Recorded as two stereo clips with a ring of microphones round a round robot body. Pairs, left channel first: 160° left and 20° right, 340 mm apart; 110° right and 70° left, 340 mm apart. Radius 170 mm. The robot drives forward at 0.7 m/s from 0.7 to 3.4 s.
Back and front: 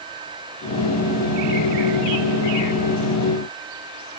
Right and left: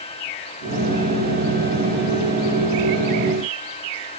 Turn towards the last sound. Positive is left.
No sound to turn to.